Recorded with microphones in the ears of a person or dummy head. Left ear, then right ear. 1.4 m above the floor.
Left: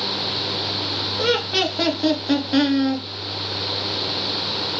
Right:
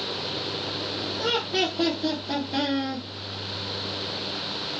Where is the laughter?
65° left (ahead or behind), 1.4 m; by 3.0 s 25° left (ahead or behind), 0.9 m.